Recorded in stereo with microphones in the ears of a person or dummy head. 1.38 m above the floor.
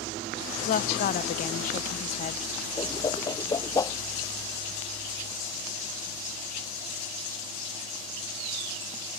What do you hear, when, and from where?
0.6 s a woman speaking: 45° left (ahead or behind)
2.8 s a whoosh: 25° left (ahead or behind)